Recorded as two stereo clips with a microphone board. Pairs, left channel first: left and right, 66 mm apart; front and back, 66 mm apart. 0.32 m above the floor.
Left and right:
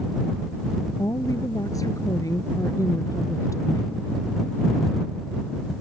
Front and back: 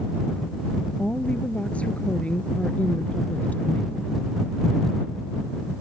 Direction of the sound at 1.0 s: 70° left.